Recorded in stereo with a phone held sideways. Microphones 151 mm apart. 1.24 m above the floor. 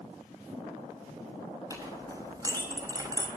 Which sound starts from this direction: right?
A clink, at 1.7 s.